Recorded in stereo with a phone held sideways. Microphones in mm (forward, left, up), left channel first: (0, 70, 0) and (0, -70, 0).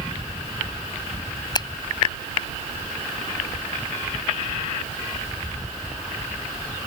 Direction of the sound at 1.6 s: 30° left (ahead or behind).